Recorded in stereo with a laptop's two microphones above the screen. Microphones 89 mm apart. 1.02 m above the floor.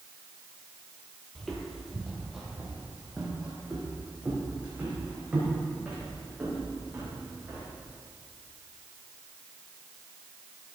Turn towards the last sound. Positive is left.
turn(degrees=-20)  # may be behind; listen again after turning